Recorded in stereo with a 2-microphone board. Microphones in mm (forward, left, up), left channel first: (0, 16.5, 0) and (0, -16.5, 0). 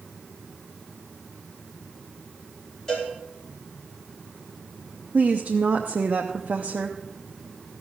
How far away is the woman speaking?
About 0.8 m.